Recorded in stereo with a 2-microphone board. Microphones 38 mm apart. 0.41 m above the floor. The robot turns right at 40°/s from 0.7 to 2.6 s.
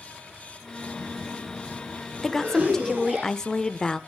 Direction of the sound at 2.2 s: 10° left (ahead or behind).